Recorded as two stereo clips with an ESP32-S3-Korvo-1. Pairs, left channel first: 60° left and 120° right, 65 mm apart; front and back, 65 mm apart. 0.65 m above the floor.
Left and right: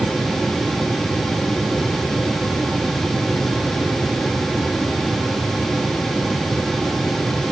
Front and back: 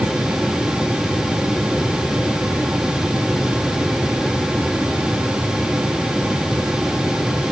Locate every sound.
Only background noise.